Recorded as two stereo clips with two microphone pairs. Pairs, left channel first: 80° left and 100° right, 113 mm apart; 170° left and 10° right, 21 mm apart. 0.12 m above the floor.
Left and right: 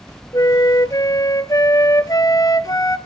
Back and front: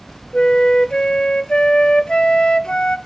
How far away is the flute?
About 0.7 m.